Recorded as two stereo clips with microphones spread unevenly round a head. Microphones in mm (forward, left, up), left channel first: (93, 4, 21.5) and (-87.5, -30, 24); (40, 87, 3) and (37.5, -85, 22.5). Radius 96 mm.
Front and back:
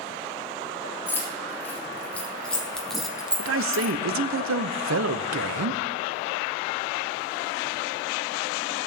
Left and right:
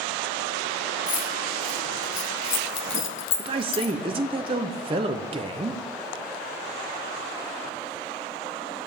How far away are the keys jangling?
About 2.5 m.